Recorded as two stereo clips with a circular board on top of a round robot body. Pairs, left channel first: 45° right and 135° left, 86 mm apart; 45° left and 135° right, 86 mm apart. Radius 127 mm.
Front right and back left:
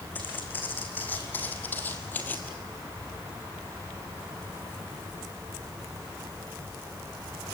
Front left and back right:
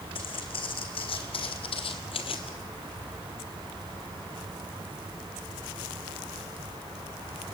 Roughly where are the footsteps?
Ahead left.